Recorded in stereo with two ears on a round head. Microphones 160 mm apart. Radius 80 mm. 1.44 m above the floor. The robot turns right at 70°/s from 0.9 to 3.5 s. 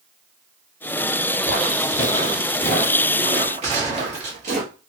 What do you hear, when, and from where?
1.4 s footsteps: 10° left (ahead or behind), 1.6 m; by 4.6 s 45° right (ahead or behind), 2.0 m
3.6 s a gunshot: 40° right (ahead or behind), 1.9 m